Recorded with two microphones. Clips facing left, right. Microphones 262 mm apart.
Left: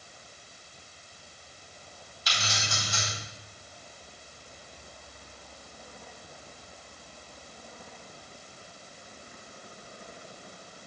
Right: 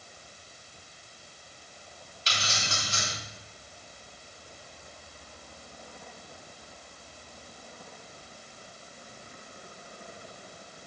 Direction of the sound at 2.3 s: 30° right (ahead or behind).